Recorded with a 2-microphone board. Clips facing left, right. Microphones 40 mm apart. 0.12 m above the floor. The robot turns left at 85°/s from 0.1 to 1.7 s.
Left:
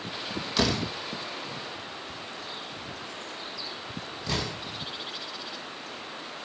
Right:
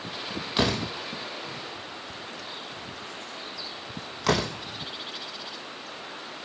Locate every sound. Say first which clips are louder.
0.6 s a door slam: right 1 dB; 15° right (ahead or behind), 2.5 m; by 4.5 s 65° right (ahead or behind), 2.5 m